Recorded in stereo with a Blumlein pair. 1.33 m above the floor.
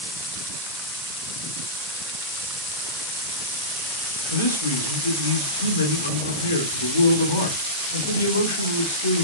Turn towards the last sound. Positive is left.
turn(degrees=65)